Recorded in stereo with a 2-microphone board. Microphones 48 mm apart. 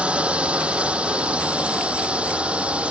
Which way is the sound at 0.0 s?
25° right (ahead or behind).